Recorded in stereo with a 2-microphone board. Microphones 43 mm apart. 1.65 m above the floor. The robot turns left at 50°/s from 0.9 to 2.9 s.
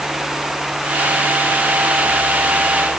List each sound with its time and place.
Only background noise.